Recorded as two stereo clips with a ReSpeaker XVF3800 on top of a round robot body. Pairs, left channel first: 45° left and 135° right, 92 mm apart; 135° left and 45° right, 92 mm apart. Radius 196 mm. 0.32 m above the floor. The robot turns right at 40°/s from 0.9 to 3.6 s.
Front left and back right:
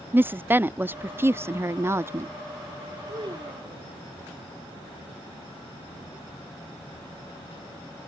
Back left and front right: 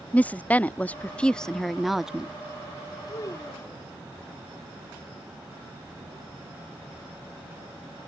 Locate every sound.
0.1 s a woman speaking: 170° right; by 2.3 s 115° right
3.1 s a child speaking: straight behind; by 4.0 s 160° right